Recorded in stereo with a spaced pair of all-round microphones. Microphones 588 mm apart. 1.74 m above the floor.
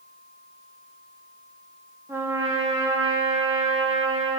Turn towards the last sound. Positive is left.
turn(degrees=-5)  # may be behind; listen again after turning